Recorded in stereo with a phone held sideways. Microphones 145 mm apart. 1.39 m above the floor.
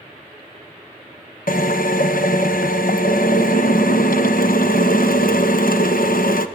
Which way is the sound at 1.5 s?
75° left (ahead or behind).